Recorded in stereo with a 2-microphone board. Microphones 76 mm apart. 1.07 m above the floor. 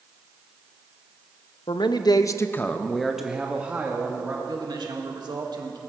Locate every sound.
1.7 s a man speaking: 80° left, 0.8 m; by 4.3 s 25° right (ahead or behind), 1.7 m
4.5 s a man speaking: 65° right (ahead or behind), 1.8 m